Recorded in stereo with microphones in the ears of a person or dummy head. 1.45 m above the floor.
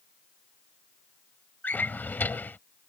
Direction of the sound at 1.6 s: 5° left (ahead or behind).